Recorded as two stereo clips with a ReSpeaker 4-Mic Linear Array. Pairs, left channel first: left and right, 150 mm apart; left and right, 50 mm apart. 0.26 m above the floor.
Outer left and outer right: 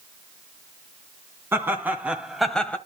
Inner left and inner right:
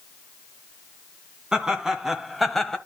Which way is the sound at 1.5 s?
15° right (ahead or behind).